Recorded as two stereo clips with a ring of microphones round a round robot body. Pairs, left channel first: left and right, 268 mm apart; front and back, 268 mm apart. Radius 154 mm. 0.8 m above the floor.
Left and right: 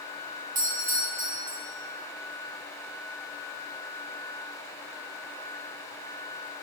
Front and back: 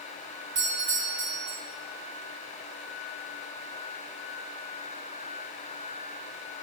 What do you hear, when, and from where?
0.6 s a doorbell: 145° right, 2.5 m